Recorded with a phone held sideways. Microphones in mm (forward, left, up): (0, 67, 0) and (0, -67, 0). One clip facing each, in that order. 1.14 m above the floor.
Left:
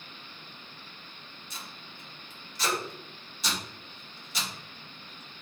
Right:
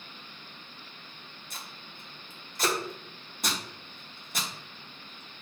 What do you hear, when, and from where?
1.5 s tape being pulled: 45° right (ahead or behind), 0.5 m